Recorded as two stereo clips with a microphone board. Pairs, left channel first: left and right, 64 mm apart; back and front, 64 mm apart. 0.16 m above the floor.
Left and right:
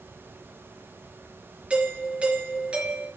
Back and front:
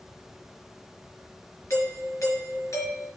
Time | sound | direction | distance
1.7 | a doorbell | 155° right | 3.5 m